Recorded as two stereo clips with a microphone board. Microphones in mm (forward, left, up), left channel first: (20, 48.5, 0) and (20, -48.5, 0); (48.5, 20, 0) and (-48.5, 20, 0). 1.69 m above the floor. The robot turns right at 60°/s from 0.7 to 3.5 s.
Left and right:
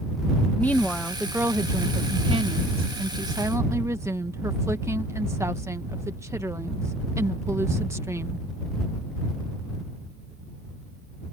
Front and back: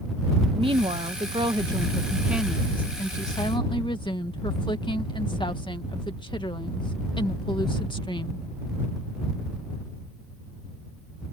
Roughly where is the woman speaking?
Behind.